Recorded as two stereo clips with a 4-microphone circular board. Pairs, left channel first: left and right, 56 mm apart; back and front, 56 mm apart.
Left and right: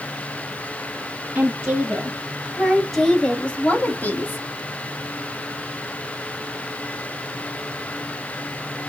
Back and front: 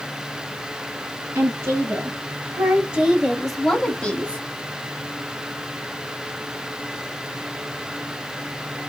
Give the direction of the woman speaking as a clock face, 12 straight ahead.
1 o'clock.